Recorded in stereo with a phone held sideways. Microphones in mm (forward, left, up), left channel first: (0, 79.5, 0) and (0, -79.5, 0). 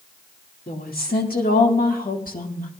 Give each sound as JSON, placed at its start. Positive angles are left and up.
{"t": 0.7, "sound": "a woman speaking", "side_deg": 70, "distance_m": 2.5}